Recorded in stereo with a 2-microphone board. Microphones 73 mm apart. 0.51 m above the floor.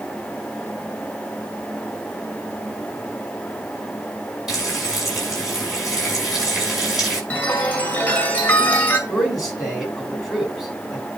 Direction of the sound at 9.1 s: Centre (ahead or behind).